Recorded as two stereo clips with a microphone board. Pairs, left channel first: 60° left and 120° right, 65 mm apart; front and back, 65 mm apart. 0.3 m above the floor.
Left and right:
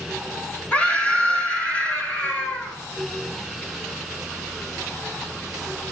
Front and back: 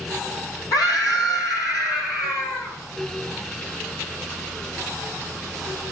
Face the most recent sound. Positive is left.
turn(degrees=-10)